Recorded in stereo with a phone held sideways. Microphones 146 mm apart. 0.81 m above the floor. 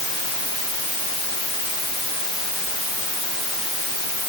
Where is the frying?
I don't hear frying.